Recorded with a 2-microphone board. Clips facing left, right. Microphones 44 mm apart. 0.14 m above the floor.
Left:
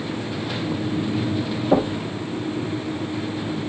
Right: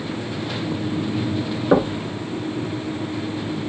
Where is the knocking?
45° right (ahead or behind), 1.4 m.